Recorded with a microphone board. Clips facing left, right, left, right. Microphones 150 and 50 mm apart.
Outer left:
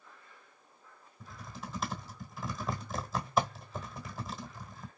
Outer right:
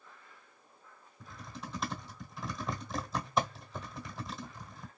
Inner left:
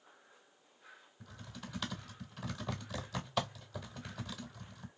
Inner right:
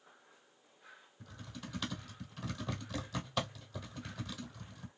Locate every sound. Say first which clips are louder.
1.2 s typing on a keyboard: even, inner right 1 dB; centre (ahead or behind), 1.0 m